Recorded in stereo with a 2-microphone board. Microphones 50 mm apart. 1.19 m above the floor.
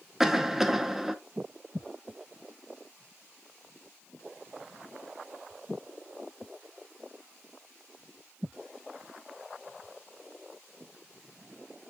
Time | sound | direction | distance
0.2 | a cough | 5° right (ahead or behind) | 1.0 m